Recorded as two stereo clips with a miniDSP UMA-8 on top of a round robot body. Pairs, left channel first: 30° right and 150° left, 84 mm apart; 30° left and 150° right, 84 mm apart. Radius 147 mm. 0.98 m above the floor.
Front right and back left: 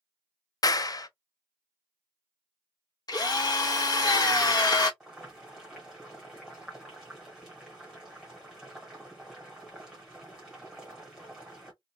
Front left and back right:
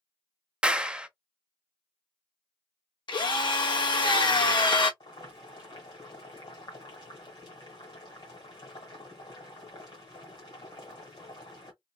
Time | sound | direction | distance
0.6 | a clap | 70° right | 0.5 m
3.1 | a drill | 10° left | 1.2 m
5.0 | boiling | 60° left | 1.2 m